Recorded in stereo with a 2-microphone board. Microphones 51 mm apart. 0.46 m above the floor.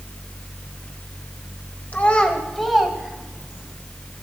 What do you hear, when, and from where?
1.9 s a child speaking: 35° left (ahead or behind), 1.5 m; by 3.7 s 20° right (ahead or behind), 3.5 m